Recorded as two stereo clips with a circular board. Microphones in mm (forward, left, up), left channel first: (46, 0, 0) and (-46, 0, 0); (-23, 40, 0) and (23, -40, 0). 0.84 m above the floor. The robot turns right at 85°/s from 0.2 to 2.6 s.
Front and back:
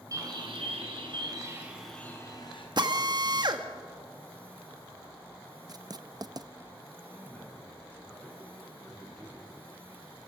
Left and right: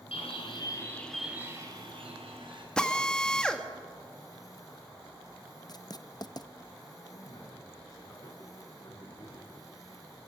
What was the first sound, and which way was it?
A bird, 130° left.